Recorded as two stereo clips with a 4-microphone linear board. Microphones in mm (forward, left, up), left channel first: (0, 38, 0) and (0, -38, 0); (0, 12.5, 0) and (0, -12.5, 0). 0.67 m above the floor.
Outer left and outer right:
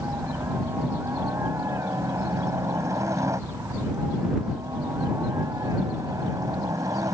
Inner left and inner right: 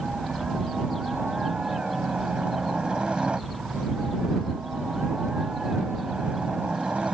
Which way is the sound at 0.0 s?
40° right (ahead or behind).